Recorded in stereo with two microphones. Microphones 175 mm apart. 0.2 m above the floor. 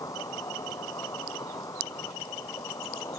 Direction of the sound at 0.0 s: 20° left (ahead or behind).